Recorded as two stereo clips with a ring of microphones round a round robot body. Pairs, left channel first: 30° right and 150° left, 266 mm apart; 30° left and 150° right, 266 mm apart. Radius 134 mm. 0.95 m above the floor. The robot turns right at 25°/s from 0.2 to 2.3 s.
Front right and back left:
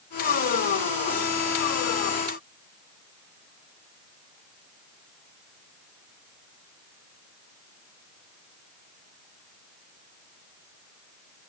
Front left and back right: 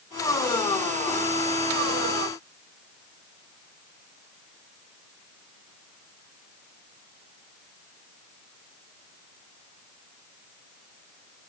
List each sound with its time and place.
Only background noise.